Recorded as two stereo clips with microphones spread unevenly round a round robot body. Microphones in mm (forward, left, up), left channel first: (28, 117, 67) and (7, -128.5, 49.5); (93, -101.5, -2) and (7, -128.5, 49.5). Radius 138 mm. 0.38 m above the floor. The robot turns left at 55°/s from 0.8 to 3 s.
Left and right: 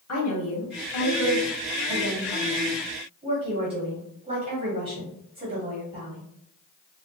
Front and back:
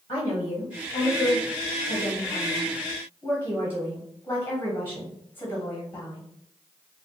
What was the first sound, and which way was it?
A woman speaking, 90° left.